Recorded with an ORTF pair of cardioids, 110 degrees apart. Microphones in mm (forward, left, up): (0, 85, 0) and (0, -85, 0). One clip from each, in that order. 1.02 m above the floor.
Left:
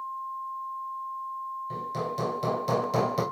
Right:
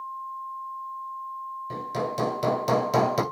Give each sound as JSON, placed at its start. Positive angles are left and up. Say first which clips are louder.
{"t": 1.7, "sound": "hammering", "louder": "right 4 dB", "azimuth_deg": -35, "distance_m": 2.5}